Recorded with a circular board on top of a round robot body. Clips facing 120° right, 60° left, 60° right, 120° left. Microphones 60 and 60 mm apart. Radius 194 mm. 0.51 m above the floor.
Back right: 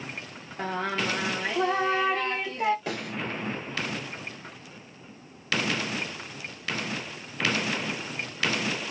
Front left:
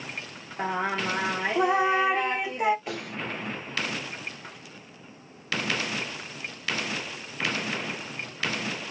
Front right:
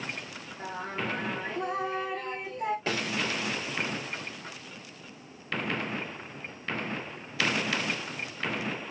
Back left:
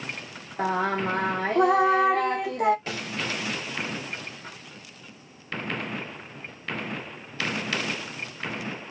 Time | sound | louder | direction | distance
0.6 | singing | front left 1 dB, back left 10 dB | 135° left | 0.7 m
2.9 | a snare drum | back right 2 dB, front right 3 dB | 110° right | 3.5 m